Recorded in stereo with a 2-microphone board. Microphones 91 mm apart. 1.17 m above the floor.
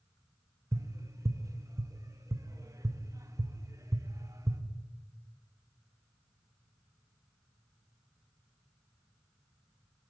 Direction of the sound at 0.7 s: 35° right (ahead or behind).